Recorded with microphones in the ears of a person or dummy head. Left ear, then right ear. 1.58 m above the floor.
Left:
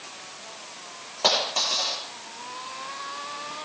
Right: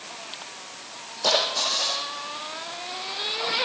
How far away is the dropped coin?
About 8 m.